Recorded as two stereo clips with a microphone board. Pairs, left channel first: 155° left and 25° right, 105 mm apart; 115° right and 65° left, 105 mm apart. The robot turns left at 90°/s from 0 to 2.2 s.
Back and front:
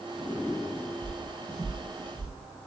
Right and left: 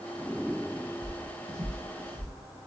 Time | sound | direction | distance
1.0 | footsteps | 85° left | 1.7 m